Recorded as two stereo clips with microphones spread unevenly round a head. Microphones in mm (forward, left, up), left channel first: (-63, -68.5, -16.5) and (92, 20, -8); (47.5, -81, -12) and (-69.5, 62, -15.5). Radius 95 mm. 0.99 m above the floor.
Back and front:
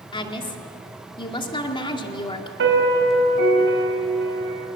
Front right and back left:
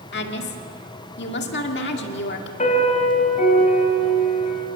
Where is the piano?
5° left, 4 m.